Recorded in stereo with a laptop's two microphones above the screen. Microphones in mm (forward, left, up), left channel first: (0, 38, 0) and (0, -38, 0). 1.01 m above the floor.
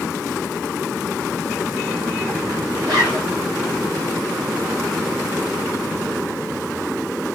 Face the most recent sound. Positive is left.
turn(degrees=-60)  # may be behind; listen again after turning